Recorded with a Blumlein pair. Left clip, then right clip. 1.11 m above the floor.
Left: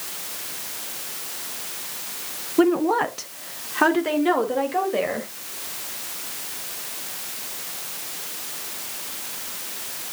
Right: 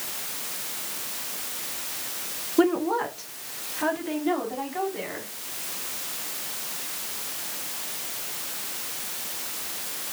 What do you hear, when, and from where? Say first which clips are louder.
2.6 s a woman speaking: left 4 dB; straight ahead, 1.0 m; by 5.3 s 45° left, 5 m